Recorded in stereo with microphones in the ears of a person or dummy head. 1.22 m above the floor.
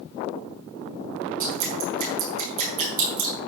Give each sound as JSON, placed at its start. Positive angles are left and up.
{"t": 1.4, "sound": "dripping", "side_deg": -45, "distance_m": 4.5}